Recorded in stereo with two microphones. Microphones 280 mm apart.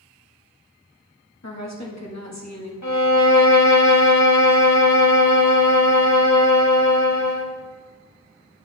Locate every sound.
1.4 s a woman speaking: 70° left (ahead or behind), 1.4 m
2.8 s a violin: 80° left, 0.8 m